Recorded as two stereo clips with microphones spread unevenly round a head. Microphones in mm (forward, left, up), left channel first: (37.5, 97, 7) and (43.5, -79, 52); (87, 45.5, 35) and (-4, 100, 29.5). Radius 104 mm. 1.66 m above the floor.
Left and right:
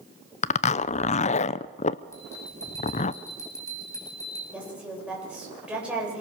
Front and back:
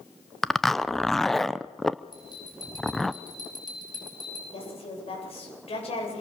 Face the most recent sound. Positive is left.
turn(degrees=-5)